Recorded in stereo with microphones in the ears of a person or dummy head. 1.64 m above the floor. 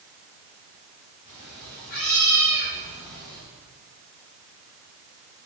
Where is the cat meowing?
55° left (ahead or behind), 4 m; by 3.4 s 60° left (ahead or behind), 5 m.